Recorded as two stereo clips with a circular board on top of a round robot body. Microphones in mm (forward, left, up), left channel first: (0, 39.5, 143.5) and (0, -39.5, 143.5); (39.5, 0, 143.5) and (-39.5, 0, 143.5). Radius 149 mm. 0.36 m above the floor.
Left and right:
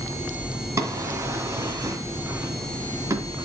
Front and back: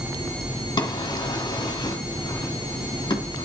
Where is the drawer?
35° right, 2 m.